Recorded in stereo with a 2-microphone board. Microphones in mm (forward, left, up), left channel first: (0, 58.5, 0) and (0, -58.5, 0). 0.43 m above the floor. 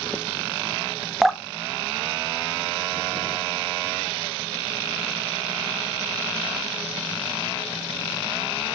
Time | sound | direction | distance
1.2 | dripping | centre (ahead or behind) | 0.5 m